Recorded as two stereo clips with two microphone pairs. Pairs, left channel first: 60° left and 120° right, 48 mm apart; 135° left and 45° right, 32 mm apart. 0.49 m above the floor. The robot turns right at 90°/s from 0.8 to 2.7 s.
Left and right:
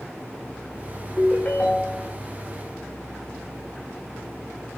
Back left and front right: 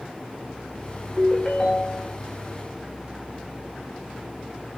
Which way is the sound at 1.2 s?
50° left.